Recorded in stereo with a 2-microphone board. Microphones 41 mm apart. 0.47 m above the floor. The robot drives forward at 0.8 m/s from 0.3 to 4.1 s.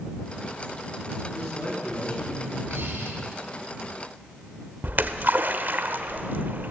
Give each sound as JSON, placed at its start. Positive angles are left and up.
{"t": 1.3, "sound": "a man speaking", "side_deg": 60, "distance_m": 8.0}
{"t": 2.7, "sound": "breathing", "side_deg": -65, "distance_m": 5.5}
{"t": 4.8, "sound": "a splash", "side_deg": -55, "distance_m": 1.2}